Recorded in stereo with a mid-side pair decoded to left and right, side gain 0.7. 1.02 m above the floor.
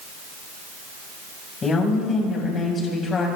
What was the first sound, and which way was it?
A woman speaking, 30° left.